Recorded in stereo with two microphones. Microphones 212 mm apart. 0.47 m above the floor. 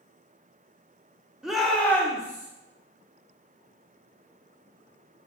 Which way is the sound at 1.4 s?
5° right (ahead or behind).